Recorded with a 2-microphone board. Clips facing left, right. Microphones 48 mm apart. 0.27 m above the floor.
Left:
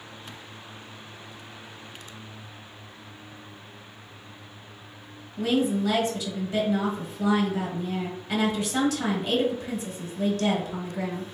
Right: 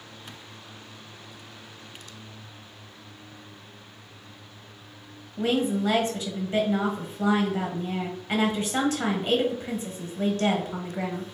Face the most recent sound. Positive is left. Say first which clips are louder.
# left 1 dB
turn(degrees=-35)  # may be behind; listen again after turning